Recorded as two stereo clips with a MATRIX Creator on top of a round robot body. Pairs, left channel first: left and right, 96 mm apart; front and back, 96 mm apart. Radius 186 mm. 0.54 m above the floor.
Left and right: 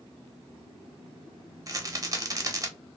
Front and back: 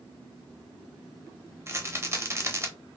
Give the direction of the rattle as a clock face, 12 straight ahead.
4 o'clock.